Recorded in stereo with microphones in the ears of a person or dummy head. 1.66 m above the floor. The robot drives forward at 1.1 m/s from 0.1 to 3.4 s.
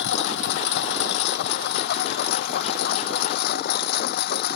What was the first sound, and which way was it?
A lawn mower, 60° left (ahead or behind).